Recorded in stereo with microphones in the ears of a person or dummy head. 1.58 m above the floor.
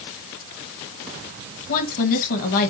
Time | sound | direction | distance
1.7 | a woman speaking | 50° left (ahead or behind) | 1.6 m